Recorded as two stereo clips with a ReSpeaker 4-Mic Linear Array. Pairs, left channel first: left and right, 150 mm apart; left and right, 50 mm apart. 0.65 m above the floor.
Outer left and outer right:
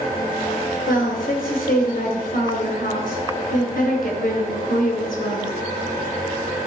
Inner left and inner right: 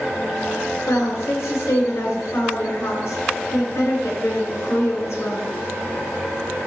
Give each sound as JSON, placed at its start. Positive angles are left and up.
{"t": 0.9, "sound": "a woman speaking", "side_deg": 75, "distance_m": 3.5}